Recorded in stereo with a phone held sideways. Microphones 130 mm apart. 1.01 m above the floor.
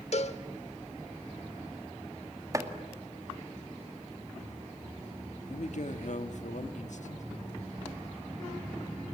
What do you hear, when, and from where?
0.1 s a cowbell: 55° left (ahead or behind), 1.1 m
2.5 s chopping: 25° right (ahead or behind), 1.9 m
5.5 s a man speaking: 65° left (ahead or behind), 1.5 m